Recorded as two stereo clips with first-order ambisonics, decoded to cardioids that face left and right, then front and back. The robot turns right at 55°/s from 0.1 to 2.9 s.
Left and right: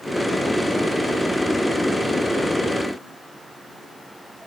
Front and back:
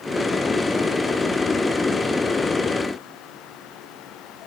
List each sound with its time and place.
Only background noise.